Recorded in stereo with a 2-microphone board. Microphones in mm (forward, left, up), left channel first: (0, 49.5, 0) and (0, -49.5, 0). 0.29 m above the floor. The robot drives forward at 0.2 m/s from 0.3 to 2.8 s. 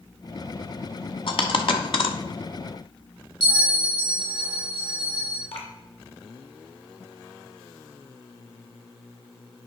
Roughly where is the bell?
Left.